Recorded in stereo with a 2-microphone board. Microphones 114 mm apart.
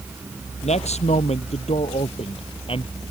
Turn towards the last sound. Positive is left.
turn(degrees=50)  # may be behind; listen again after turning